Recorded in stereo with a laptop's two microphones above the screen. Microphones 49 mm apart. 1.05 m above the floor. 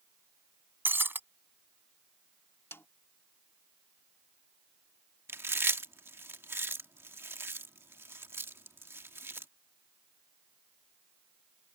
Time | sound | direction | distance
0.8 | breaking glass | 45° right (ahead or behind) | ?
2.7 | a snare drum | 60° left (ahead or behind) | ?
5.3 | chewing | 55° right (ahead or behind) | ?